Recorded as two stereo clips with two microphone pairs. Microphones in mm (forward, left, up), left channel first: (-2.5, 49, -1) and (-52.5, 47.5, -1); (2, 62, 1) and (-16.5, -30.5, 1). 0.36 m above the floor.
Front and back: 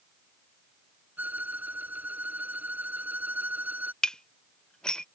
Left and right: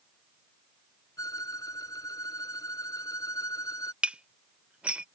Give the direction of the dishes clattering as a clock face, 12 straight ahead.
2 o'clock.